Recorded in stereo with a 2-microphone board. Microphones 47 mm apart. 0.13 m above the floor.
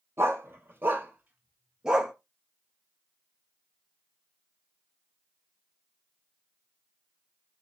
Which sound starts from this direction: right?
A dog barking, at 0.2 s.